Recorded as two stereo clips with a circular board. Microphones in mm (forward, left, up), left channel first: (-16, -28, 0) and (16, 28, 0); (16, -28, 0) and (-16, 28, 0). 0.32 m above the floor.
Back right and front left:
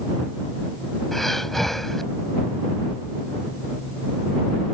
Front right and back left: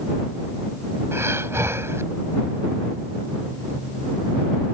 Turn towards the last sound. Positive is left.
turn(degrees=155)